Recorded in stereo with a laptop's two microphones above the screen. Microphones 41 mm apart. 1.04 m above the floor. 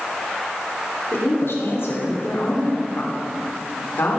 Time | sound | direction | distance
1.1 | a woman speaking | 70° left (ahead or behind) | 3.5 m